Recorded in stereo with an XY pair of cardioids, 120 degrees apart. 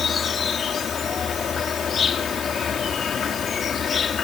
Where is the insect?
35° left.